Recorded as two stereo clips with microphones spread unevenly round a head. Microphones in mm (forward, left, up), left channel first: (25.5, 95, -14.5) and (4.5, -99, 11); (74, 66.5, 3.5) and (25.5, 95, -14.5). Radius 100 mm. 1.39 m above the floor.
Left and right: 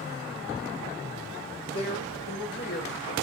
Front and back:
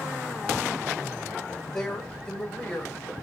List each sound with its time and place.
1.7 s a woman speaking: 50° left, 6 m; by 3.1 s 35° left, 6.5 m